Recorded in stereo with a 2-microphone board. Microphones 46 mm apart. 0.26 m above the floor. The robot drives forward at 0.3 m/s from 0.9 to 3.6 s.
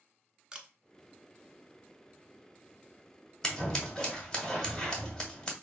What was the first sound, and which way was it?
A camera shutter, 15° right (ahead or behind).